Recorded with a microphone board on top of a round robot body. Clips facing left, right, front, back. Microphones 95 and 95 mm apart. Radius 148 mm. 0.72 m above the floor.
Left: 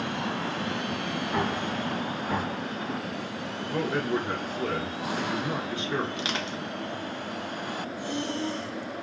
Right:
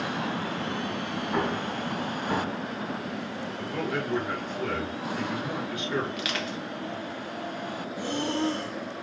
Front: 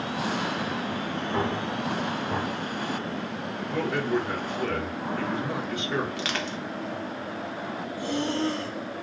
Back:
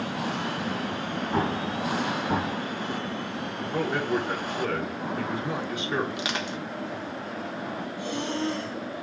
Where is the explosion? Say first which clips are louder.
Right 1 dB, back 1 dB; 170° right, 1.4 m.